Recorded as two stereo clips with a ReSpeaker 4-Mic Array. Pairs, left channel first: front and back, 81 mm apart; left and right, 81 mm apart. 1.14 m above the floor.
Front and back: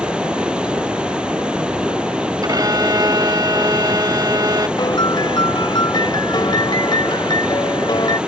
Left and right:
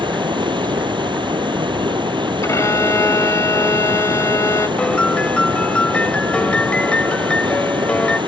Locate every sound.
0.0 s running water: 100° right
2.4 s a violin: 140° left
4.8 s a piano: 15° left